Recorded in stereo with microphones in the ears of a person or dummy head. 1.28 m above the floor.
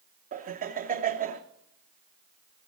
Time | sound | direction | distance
0.3 | laughter | 40° right (ahead or behind) | 1.1 m